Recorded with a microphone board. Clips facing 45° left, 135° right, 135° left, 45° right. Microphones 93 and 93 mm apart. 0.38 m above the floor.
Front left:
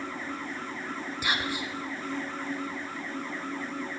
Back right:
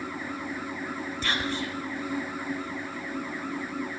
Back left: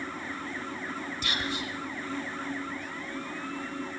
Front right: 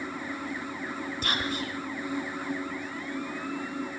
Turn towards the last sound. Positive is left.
turn(degrees=-30)